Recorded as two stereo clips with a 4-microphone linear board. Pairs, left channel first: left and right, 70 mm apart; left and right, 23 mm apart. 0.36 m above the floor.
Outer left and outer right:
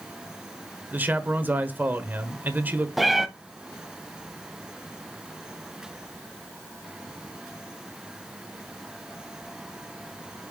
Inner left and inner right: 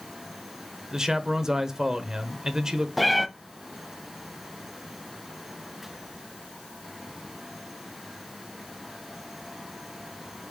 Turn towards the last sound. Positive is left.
turn(degrees=0)  # may be behind; listen again after turning